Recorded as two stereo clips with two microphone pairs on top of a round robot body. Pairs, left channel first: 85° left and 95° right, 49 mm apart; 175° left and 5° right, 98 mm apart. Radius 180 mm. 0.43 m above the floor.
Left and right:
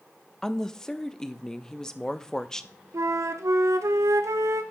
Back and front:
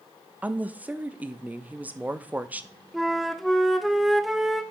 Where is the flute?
95° right, 0.6 m.